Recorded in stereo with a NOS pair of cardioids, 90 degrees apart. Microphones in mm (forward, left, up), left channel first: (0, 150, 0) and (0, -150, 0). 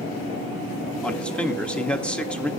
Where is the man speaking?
5° left, 1.4 m.